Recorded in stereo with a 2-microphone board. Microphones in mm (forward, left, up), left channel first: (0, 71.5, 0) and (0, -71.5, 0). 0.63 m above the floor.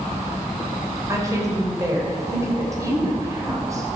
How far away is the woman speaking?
About 3 m.